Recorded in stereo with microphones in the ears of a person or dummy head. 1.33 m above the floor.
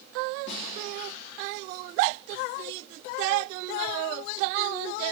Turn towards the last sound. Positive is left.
turn(degrees=65)  # may be behind; listen again after turning